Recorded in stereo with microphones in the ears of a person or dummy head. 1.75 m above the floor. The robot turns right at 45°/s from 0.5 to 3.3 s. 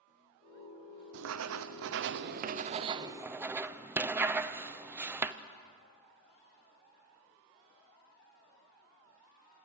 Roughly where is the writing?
Right.